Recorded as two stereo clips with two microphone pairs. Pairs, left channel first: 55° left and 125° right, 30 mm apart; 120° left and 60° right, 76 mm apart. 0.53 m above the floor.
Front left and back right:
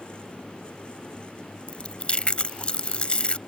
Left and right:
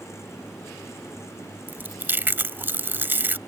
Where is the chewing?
Straight ahead.